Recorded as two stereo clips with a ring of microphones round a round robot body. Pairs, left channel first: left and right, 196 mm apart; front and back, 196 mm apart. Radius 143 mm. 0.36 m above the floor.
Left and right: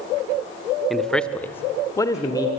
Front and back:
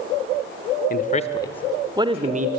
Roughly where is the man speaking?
Ahead.